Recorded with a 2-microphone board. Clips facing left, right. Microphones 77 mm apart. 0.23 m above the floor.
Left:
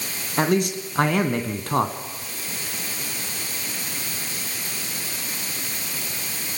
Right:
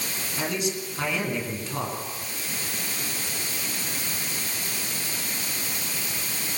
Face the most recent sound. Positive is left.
turn(degrees=55)  # may be behind; listen again after turning